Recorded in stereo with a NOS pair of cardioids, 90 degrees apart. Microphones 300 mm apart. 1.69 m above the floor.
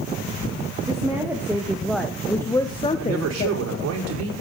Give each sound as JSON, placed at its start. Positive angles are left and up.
{"t": 0.9, "sound": "a woman speaking", "azimuth_deg": -10, "distance_m": 2.5}
{"t": 3.0, "sound": "a man speaking", "azimuth_deg": -55, "distance_m": 5.5}